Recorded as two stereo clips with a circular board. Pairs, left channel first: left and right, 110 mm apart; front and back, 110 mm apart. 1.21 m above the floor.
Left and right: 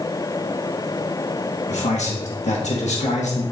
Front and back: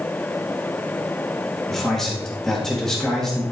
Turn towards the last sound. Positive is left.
turn(degrees=85)